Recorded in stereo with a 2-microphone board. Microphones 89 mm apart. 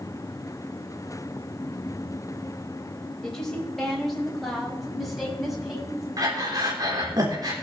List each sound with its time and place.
3.2 s a woman speaking: 5° left (ahead or behind), 4.5 m; by 6.1 s 5° right (ahead or behind), 6.5 m
6.2 s breathing: 45° right (ahead or behind), 3.5 m